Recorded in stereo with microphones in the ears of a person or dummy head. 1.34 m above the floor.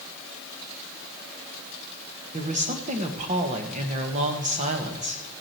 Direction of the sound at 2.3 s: 40° right (ahead or behind).